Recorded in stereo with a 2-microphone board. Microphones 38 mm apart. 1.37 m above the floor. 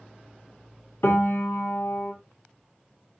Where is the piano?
70° left (ahead or behind), 0.8 m.